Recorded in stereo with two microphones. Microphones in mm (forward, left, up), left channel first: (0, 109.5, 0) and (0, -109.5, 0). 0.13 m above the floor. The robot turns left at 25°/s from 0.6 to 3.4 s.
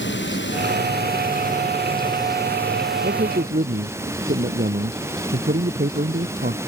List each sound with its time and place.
0.0 s running water: 60° left; by 6.7 s 10° right
3.0 s a man speaking: 50° right (ahead or behind); by 6.6 s 40° right (ahead or behind)